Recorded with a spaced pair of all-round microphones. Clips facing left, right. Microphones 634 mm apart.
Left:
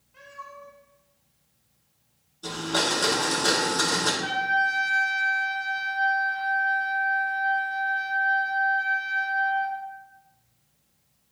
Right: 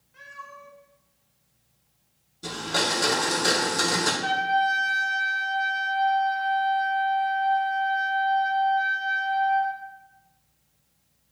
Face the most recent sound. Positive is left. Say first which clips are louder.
# right 3 dB
turn(degrees=45)  # may be behind; listen again after turning